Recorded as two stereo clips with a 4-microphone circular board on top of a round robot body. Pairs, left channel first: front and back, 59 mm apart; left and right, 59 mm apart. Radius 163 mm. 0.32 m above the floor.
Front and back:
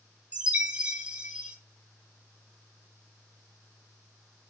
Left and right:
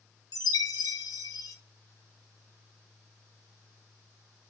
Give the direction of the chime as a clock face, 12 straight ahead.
8 o'clock.